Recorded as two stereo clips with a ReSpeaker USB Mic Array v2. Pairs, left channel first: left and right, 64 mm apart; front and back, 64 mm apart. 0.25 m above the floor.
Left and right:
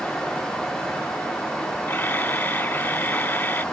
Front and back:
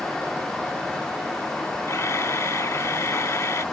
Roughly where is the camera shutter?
Ahead left.